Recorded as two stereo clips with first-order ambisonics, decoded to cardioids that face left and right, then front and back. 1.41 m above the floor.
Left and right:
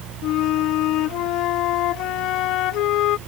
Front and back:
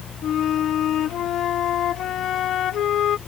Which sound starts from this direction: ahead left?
A flute, at 0.2 s.